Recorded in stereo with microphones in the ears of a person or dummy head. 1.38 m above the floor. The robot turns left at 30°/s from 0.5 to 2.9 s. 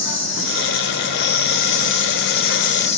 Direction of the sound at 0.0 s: 115° left.